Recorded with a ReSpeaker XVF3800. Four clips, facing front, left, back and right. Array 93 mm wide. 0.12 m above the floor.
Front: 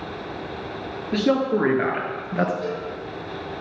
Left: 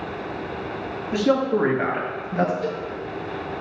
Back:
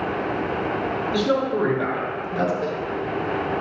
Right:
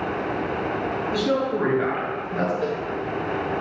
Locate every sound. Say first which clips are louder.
1.1 s a man speaking: left 5 dB, front 3 dB; 25° left, 2.5 m; by 2.5 s 10° left, 2.0 m
2.6 s a cowbell: right 1 dB, back 2 dB; 115° right, 4 m